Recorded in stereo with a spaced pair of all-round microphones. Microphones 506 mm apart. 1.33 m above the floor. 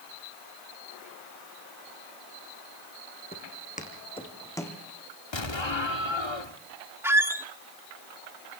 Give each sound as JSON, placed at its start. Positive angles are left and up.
{"t": 3.3, "sound": "footsteps", "side_deg": 20, "distance_m": 3.5}
{"t": 5.3, "sound": "an explosion", "side_deg": 60, "distance_m": 1.5}
{"t": 7.0, "sound": "a squeak", "side_deg": -5, "distance_m": 1.2}